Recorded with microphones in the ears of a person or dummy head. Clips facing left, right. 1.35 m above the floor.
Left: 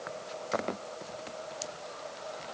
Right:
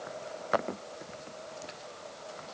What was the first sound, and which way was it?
Only background noise.